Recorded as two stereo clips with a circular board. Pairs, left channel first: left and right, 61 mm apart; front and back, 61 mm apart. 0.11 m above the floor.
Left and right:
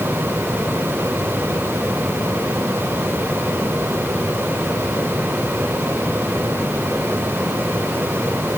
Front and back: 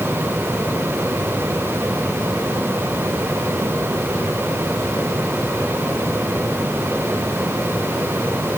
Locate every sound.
Only background noise.